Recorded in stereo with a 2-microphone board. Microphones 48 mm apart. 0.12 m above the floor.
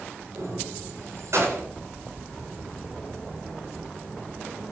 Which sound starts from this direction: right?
Keys jangling, at 0.3 s.